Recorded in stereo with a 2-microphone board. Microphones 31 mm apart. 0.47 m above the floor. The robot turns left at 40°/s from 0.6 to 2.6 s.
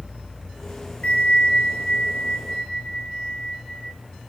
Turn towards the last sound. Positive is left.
turn(degrees=65)